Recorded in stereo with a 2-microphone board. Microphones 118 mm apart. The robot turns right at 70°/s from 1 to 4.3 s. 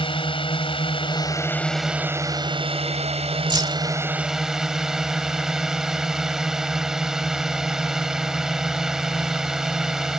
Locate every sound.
0.0 s a drone: 125° left; by 10.2 s 5° right
3.5 s keys jangling: 40° right (ahead or behind); by 3.8 s 25° right (ahead or behind)